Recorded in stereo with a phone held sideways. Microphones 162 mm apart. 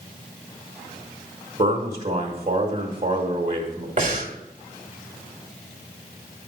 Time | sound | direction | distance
1.6 | a man speaking | 45° right (ahead or behind) | 1.3 m
4.0 | breathing | 50° right (ahead or behind) | 1.4 m